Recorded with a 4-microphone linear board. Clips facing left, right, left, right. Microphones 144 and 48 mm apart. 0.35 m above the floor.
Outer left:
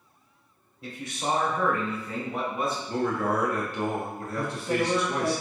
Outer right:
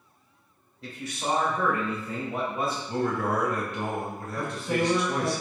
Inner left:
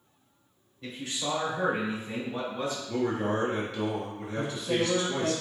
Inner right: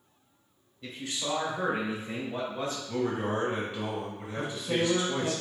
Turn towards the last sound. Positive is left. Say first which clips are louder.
# outer left 1 dB, inner left 1 dB
turn(degrees=5)  # may be behind; listen again after turning